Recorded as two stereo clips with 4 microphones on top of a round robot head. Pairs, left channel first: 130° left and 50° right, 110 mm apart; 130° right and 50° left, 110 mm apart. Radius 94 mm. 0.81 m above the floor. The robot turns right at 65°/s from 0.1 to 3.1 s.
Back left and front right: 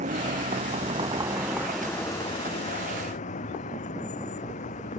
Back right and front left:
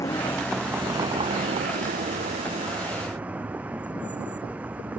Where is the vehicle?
65° right; by 5.0 s 130° left.